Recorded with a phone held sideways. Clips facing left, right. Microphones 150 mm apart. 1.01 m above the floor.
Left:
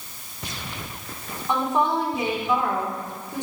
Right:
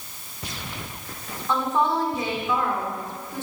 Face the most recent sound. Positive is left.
turn(degrees=15)  # may be behind; listen again after turning